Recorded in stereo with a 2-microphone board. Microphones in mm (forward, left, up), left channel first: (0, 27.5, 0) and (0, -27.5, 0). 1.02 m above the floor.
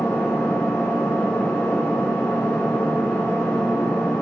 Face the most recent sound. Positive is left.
turn(degrees=20)  # may be behind; listen again after turning